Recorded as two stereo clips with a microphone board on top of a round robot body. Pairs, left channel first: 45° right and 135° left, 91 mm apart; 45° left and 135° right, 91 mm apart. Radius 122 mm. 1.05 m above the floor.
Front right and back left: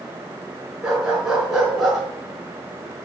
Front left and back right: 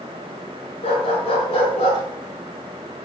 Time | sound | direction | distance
0.8 | a dog barking | 50° left | 5.5 m